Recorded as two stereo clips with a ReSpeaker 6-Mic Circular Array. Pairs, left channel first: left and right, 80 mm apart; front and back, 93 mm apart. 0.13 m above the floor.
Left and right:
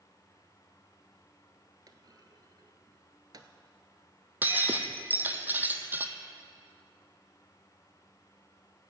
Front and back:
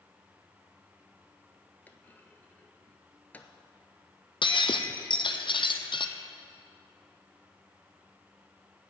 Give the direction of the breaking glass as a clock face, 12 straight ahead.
1 o'clock.